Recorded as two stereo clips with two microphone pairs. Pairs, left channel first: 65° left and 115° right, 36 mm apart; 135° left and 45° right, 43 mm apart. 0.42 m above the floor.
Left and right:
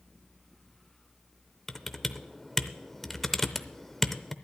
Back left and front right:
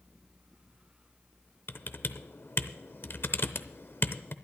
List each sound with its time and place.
1.7 s typing on a keyboard: 150° left, 0.6 m